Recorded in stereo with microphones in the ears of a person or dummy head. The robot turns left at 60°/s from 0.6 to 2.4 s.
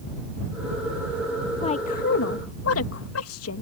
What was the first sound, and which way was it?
A woman speaking, 25° left (ahead or behind).